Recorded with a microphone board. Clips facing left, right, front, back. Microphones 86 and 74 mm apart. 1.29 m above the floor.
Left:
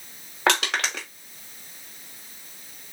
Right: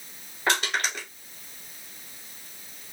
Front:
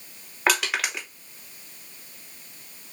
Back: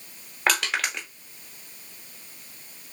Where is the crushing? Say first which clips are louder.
Left 3 dB, front 1 dB; 85° left, 1.9 m.